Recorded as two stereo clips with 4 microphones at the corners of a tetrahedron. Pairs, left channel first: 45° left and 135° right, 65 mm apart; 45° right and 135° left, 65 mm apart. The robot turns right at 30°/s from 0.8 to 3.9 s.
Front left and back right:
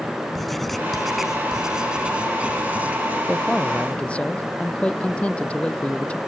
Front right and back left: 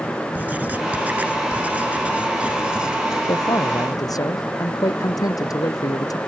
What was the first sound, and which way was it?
Writing, 130° left.